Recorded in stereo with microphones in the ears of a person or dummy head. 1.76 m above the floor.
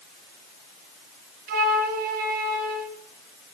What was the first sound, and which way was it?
A flute, 50° right (ahead or behind).